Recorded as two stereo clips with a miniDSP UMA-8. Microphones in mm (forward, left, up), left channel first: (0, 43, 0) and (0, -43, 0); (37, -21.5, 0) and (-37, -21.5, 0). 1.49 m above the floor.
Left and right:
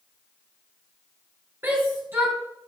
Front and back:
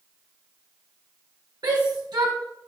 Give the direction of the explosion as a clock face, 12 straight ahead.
I don't hear an explosion.